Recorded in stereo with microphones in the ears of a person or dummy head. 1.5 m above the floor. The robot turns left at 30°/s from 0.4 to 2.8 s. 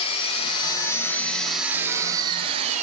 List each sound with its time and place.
0.0 s an engine running: 35° left, 3.5 m; by 2.8 s 35° right, 3.5 m